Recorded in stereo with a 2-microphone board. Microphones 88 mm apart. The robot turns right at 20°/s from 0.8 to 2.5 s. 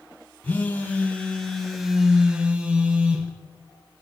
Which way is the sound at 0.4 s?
160° left.